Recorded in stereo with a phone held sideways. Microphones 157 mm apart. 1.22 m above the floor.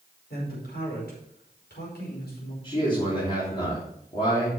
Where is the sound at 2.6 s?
35° left (ahead or behind), 3.5 m.